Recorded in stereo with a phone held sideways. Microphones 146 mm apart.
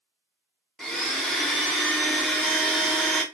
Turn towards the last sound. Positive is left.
turn(degrees=5)  # may be behind; listen again after turning